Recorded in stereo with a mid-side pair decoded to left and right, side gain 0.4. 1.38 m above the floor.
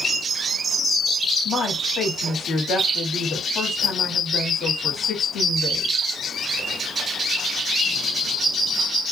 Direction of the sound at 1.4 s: 50° left.